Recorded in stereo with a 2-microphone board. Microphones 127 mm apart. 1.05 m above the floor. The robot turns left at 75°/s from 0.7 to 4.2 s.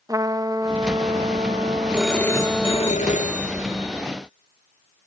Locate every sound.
0.1 s a trumpet: 35° right, 1.4 m; by 2.9 s 160° left, 1.4 m
1.9 s a phone ringing: 170° right, 1.7 m; by 4.0 s 30° left, 1.7 m